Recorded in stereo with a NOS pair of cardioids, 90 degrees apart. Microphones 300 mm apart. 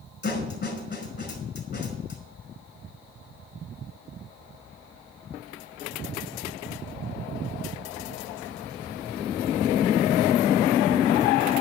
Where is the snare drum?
35° left, 5 m.